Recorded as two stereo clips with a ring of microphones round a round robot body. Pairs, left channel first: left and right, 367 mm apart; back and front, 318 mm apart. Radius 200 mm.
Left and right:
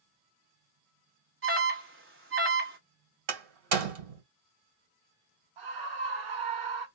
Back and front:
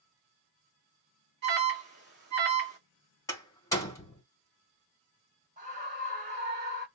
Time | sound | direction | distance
1.4 | an alarm | 45° right | 2.5 m
3.3 | a door slam | 100° right | 2.0 m
5.6 | a scream | 70° right | 2.5 m